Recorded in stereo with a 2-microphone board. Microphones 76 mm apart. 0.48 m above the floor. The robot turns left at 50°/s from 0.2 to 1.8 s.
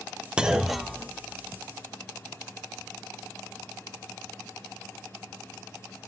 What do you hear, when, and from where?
0.4 s a clunk: 15° right (ahead or behind), 0.6 m; by 1.6 s 20° left (ahead or behind), 0.6 m